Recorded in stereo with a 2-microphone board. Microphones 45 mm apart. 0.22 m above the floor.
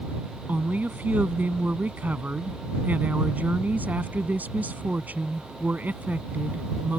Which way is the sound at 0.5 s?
40° right (ahead or behind).